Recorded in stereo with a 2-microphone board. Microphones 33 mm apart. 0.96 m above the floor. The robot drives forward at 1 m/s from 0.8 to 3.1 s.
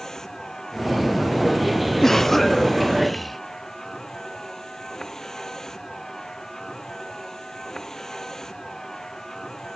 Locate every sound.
0.0 s a vehicle: 15° left (ahead or behind)
2.0 s a cough: 10° left (ahead or behind); by 3.4 s 5° left (ahead or behind)